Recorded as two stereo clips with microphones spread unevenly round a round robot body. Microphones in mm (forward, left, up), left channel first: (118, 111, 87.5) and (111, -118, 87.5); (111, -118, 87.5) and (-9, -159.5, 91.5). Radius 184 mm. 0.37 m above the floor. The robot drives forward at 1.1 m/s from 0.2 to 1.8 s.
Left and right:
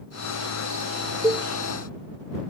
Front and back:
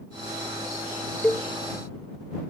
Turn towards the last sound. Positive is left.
turn(degrees=-130)